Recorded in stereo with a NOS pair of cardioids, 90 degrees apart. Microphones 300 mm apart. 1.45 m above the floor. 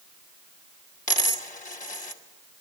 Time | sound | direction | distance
1.1 | a dropped coin | 25° left | 2.5 m